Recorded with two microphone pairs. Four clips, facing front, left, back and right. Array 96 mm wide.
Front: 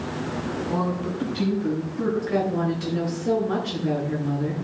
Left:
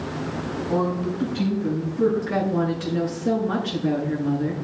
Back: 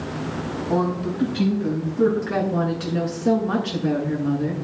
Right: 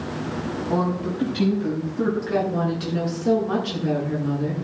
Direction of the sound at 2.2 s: 165° right.